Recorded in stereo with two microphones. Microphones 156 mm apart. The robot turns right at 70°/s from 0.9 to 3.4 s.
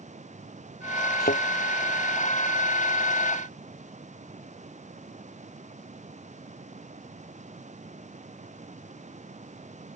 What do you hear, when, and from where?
1.2 s a thud: 80° left; by 1.4 s 75° left (ahead or behind)